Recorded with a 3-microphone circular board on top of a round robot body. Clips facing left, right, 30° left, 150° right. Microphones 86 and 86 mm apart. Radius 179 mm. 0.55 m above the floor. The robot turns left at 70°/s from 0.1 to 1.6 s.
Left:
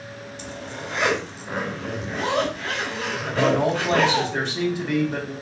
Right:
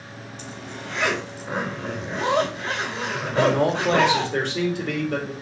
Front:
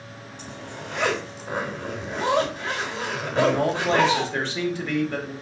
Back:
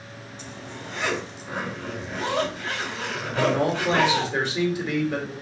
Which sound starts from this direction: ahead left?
A zipper, at 0.4 s.